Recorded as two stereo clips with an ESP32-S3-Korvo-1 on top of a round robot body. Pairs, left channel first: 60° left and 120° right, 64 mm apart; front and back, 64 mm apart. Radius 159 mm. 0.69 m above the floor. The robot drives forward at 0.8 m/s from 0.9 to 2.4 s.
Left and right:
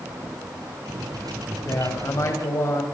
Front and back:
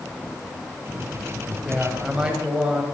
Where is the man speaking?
95° left, 5 m; by 2.8 s 100° left, 5 m.